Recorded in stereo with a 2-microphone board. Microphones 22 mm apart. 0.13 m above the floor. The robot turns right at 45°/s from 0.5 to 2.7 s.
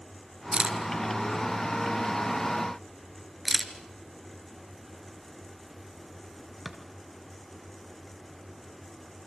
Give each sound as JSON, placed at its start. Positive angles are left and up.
{"t": 0.5, "sound": "a camera shutter", "side_deg": -45, "distance_m": 2.5}